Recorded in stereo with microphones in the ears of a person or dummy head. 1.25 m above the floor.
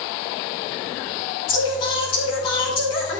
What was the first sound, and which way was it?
Singing, 35° left (ahead or behind).